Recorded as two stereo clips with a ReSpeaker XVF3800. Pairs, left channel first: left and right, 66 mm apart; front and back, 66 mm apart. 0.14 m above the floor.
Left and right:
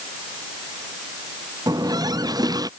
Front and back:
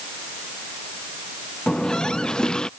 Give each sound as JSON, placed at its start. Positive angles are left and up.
{"t": 1.7, "sound": "a running tap", "azimuth_deg": -75}